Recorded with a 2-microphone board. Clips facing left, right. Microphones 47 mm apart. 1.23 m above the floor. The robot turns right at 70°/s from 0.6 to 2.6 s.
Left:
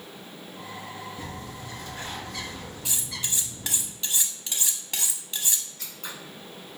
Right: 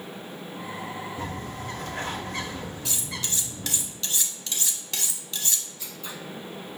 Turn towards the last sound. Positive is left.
turn(degrees=60)  # may be behind; listen again after turning